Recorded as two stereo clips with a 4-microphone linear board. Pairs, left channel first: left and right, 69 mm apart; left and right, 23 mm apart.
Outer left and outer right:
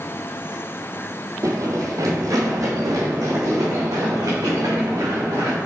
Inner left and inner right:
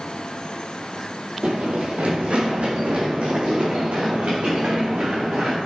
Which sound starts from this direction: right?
Running footsteps, at 1.4 s.